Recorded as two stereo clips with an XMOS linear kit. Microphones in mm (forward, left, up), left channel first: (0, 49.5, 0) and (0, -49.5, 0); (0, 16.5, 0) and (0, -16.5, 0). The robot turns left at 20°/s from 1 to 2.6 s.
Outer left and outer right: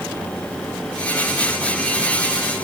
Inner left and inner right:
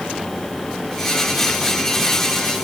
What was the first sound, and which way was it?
Only background noise.